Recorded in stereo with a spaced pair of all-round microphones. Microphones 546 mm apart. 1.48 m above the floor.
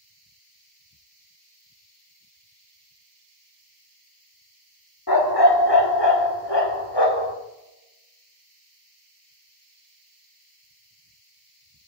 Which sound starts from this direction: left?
A dog barking, at 5.1 s.